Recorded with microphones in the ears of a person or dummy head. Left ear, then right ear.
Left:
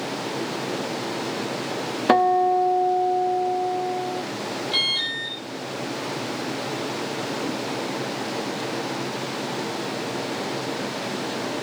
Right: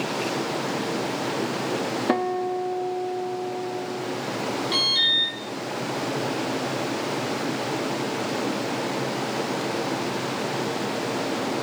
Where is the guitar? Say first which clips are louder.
Left 10 dB; 30° left (ahead or behind), 0.7 m.